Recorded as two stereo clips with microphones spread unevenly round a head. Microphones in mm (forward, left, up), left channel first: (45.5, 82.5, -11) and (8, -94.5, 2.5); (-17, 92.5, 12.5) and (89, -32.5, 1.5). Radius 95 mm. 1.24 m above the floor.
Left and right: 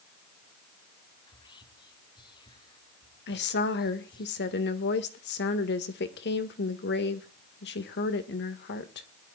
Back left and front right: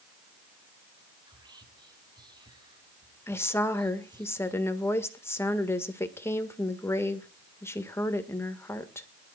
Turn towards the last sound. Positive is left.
turn(degrees=55)